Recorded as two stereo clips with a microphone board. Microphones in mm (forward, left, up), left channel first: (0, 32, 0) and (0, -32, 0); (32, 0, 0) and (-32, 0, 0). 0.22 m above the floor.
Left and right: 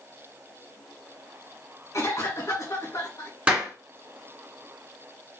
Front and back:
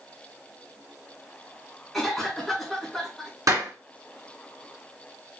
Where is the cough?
90° left, 2.5 m.